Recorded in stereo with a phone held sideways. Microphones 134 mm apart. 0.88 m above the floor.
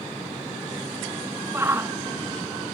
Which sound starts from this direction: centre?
A shout, at 1.5 s.